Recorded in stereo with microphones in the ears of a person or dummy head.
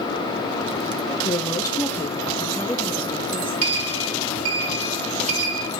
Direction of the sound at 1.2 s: 25° left (ahead or behind).